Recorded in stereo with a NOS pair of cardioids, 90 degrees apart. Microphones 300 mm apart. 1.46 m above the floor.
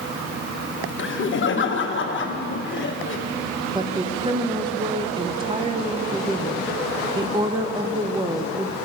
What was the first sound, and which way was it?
Laughter, 40° left.